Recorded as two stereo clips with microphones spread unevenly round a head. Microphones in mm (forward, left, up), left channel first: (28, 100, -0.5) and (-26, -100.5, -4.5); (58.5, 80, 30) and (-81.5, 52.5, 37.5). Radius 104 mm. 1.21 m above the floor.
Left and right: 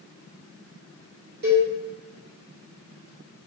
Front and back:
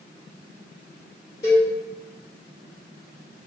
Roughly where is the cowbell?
Ahead right.